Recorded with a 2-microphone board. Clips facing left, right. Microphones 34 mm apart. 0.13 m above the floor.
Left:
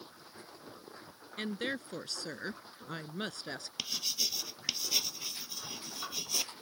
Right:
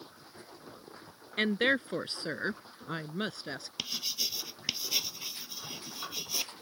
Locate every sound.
1.4 s a woman speaking: 45° right (ahead or behind); by 3.7 s 5° right (ahead or behind)
3.8 s writing: 10° right (ahead or behind)